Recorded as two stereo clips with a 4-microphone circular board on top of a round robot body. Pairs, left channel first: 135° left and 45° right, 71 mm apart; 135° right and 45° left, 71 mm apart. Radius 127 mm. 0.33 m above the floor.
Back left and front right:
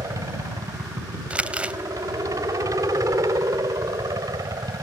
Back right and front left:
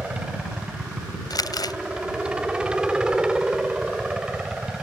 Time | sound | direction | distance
0.0 | a helicopter | 30° right | ?
1.3 | crumpling | 115° right | ?